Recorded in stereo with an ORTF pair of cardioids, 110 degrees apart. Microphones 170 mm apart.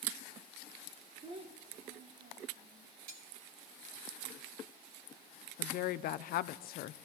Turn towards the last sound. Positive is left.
turn(degrees=65)